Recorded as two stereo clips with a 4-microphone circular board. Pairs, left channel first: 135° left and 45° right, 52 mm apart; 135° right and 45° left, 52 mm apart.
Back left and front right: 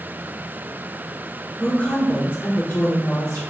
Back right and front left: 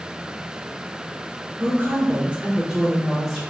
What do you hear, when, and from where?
1.6 s a woman speaking: 75° left, 1.0 m; by 3.4 s 135° left, 1.2 m